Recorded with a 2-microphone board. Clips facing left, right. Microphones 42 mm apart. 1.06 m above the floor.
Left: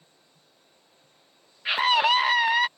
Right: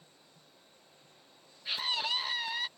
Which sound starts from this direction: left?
A scream, at 1.6 s.